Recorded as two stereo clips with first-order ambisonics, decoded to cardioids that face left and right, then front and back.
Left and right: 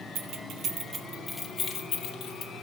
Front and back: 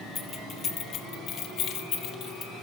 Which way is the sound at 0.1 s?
70° right.